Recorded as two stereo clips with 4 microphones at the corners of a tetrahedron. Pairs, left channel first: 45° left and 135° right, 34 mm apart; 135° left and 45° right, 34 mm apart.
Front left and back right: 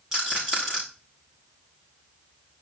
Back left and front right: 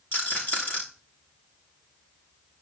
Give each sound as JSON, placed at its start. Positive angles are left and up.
{"t": 0.1, "sound": "a rattle", "azimuth_deg": 150, "distance_m": 6.0}